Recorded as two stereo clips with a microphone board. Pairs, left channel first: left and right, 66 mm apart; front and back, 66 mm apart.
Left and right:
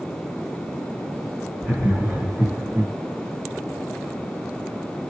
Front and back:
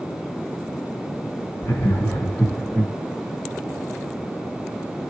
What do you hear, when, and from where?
1.6 s laughter: 10° right, 1.8 m; by 2.9 s 90° right, 2.0 m